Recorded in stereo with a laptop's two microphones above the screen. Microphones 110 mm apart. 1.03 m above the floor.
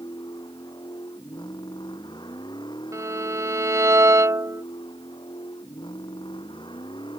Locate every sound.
0.0 s a vehicle: 40° left (ahead or behind); by 7.2 s 45° left (ahead or behind)
2.9 s a violin: 25° right (ahead or behind)